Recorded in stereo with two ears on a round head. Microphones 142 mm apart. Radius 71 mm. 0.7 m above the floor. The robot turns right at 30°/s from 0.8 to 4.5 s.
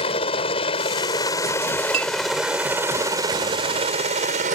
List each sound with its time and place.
0.0 s a helicopter: 40° left (ahead or behind); by 4.5 s 55° right (ahead or behind)
1.9 s a clink: 40° right (ahead or behind); by 2.1 s 45° right (ahead or behind)